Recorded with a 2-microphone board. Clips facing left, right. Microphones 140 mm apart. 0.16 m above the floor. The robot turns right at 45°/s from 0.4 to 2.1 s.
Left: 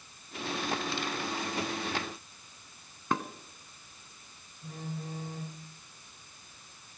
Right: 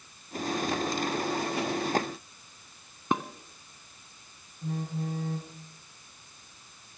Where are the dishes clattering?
20° right (ahead or behind), 0.9 m.